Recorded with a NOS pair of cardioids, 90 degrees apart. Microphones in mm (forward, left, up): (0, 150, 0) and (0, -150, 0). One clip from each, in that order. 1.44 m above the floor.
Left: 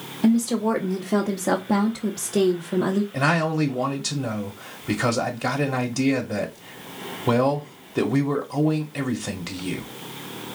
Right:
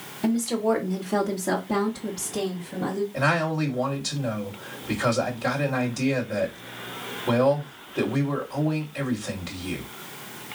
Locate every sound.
0.2 s a woman speaking: 5° left, 1.3 m; by 3.0 s 70° left, 1.3 m
3.1 s a man speaking: 45° left, 1.5 m